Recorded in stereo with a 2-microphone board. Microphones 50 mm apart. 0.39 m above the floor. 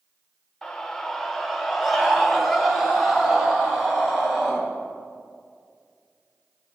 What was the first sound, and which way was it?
A scream, 10° left (ahead or behind).